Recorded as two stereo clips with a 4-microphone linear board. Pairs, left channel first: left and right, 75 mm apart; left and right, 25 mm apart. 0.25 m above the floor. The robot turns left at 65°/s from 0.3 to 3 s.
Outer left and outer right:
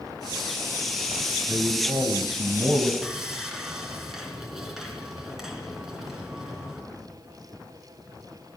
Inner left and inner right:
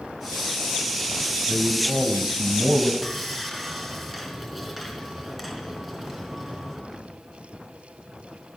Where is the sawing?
5° right (ahead or behind), 3 m.